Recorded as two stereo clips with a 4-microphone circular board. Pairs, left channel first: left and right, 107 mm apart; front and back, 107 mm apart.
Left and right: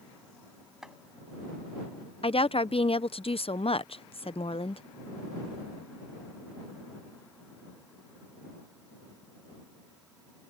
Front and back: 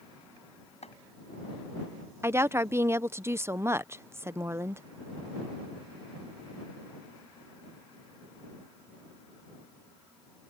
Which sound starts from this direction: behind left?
A woman speaking, at 2.2 s.